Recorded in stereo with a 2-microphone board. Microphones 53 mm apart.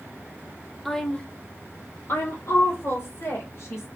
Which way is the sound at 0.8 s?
Centre (ahead or behind).